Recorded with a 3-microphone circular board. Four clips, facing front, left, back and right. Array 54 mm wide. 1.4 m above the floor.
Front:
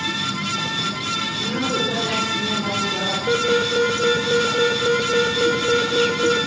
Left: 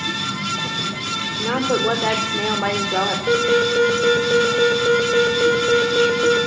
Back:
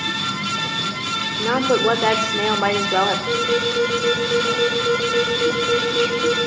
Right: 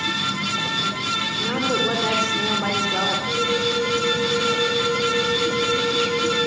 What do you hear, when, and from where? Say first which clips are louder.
1.4 s a woman speaking: left 4 dB, back 8 dB; 155° left, 4 m
3.3 s an alarm: left 5 dB, front 1 dB; 70° left, 6 m